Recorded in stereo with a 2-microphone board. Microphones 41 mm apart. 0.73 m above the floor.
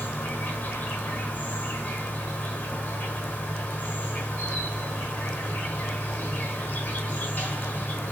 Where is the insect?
45° left (ahead or behind), 1.2 m.